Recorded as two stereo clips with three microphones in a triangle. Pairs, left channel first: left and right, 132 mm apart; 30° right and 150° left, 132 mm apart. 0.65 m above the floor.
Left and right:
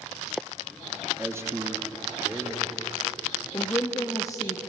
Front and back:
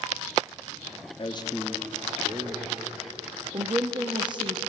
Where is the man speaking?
20° right, 0.9 m; by 3.4 s 165° right, 3 m.